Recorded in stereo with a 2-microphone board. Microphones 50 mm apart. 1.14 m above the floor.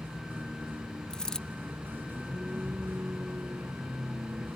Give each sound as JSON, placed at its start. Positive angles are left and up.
{"t": 0.0, "sound": "a vehicle", "side_deg": -45}
{"t": 1.1, "sound": "a dropped coin", "side_deg": 15}